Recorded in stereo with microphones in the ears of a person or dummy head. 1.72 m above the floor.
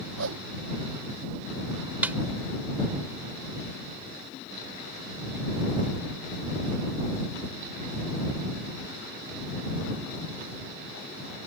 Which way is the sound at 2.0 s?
5° right (ahead or behind).